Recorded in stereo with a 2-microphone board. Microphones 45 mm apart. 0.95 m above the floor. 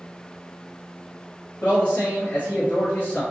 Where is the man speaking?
45° left (ahead or behind), 0.9 m.